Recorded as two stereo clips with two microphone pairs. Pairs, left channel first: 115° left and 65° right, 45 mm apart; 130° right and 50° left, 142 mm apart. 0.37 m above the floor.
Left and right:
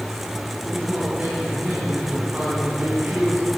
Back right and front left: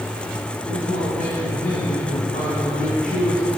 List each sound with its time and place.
0.7 s a man speaking: 130° right, 3 m